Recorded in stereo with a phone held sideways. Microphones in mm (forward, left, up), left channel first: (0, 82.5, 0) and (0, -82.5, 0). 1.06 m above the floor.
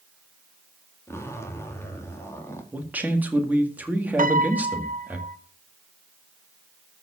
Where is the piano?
55° right (ahead or behind), 0.7 m.